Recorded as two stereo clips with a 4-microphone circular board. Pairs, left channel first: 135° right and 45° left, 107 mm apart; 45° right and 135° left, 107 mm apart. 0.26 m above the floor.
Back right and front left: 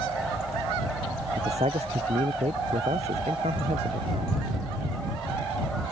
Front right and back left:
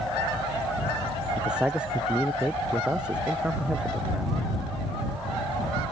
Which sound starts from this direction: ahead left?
A man speaking, at 1.4 s.